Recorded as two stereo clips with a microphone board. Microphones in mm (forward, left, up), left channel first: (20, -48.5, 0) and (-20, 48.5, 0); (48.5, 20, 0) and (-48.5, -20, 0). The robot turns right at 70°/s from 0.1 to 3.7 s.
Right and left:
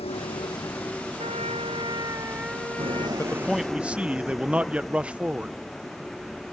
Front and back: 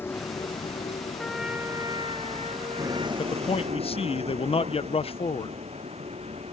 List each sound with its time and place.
0.0 s a vehicle: 45° right; by 6.5 s 155° right
1.2 s a trumpet: 105° left; by 3.1 s 125° right
3.2 s a man speaking: straight ahead; by 5.5 s 35° left